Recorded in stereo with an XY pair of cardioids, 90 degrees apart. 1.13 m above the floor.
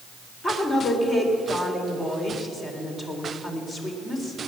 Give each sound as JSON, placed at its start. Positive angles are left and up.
{"t": 0.4, "sound": "a woman speaking", "azimuth_deg": 35, "distance_m": 3.5}